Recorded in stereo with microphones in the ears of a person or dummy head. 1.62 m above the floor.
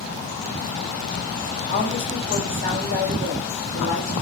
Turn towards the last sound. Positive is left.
turn(degrees=-40)  # may be behind; listen again after turning